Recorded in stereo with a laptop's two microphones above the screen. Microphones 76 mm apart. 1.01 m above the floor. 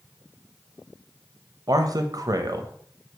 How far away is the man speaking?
About 0.7 m.